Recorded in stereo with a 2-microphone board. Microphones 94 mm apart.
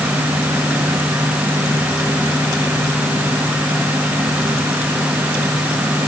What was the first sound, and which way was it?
Only background noise.